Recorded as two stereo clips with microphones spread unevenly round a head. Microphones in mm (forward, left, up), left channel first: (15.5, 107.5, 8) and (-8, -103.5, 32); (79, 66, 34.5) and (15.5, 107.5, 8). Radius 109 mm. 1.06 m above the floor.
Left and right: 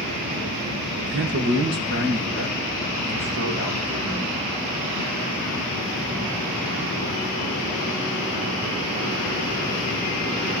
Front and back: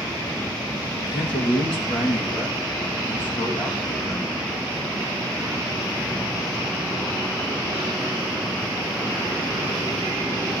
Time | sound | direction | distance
1.0 | a man speaking | 65° right | 1.2 m